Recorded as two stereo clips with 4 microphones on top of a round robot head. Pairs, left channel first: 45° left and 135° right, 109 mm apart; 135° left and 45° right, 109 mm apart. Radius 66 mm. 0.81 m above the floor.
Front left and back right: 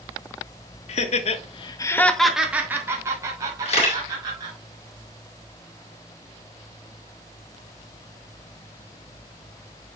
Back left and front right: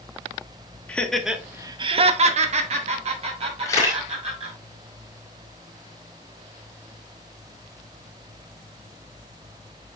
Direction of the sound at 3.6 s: 70° left.